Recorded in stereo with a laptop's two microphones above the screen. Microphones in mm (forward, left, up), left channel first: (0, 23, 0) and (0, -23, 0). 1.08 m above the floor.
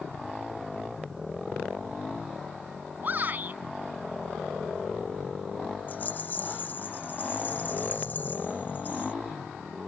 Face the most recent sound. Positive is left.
turn(degrees=40)  # may be behind; listen again after turning